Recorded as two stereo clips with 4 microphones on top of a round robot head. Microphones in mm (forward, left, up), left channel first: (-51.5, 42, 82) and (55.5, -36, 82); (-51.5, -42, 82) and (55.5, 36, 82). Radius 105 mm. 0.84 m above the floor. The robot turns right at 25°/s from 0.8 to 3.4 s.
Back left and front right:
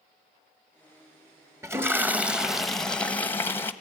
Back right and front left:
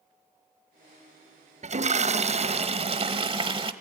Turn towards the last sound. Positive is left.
turn(degrees=70)